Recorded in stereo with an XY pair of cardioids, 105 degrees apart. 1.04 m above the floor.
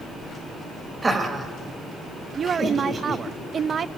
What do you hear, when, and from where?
1.0 s laughter: 25° right, 5.5 m; by 3.2 s 40° right, 6 m
2.4 s a woman speaking: 45° right, 0.8 m